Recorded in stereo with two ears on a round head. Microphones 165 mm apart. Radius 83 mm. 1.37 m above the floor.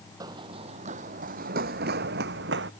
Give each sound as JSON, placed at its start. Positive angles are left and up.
{"t": 0.2, "sound": "running footsteps", "side_deg": -20}